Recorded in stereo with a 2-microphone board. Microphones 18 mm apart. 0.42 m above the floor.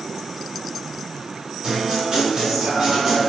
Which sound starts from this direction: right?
A guitar, at 1.6 s.